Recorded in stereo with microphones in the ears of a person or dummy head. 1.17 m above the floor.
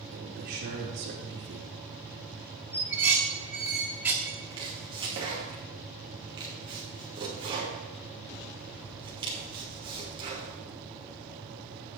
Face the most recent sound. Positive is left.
turn(degrees=-25)  # may be behind; listen again after turning